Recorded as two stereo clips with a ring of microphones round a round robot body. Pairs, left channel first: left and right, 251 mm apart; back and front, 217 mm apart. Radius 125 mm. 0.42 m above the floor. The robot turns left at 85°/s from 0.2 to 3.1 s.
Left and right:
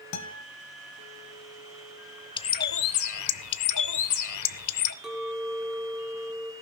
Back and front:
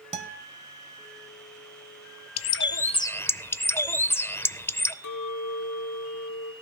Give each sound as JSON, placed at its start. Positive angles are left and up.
{"t": 0.1, "sound": "a guitar", "azimuth_deg": 60, "distance_m": 1.2}
{"t": 2.4, "sound": "a bird", "azimuth_deg": 165, "distance_m": 0.6}
{"t": 5.0, "sound": "a clink", "azimuth_deg": 180, "distance_m": 2.5}